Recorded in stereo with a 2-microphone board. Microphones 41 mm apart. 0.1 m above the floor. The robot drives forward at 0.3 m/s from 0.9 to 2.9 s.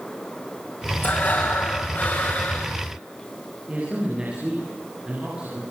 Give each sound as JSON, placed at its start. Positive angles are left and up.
{"t": 1.0, "sound": "breathing", "side_deg": 55, "distance_m": 6.0}
{"t": 3.7, "sound": "a man speaking", "side_deg": -30, "distance_m": 9.0}